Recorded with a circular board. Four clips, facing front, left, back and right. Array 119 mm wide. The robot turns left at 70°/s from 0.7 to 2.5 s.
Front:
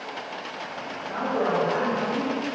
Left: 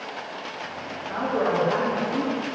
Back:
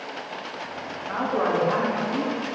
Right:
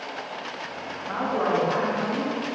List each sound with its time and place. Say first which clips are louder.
1.1 s a woman speaking: even, back 1 dB; 135° right, 3 m; by 2.3 s 135° left, 3 m